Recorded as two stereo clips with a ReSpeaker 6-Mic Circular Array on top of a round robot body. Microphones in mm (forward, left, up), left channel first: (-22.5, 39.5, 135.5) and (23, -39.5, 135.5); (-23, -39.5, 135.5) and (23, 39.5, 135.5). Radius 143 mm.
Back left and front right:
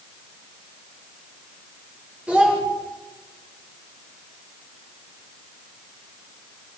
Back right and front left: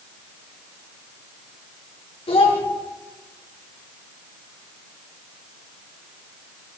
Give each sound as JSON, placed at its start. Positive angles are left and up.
{"t": 2.3, "sound": "a child speaking", "azimuth_deg": -135, "distance_m": 2.5}